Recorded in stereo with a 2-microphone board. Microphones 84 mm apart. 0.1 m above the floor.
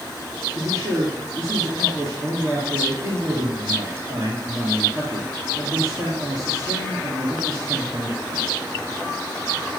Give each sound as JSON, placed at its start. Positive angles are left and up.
{"t": 0.5, "sound": "a man speaking", "side_deg": -45, "distance_m": 2.5}